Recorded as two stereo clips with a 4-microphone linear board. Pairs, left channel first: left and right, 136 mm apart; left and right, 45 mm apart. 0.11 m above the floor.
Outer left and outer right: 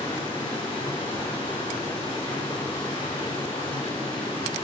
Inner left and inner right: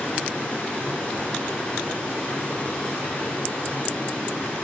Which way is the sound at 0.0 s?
35° left (ahead or behind).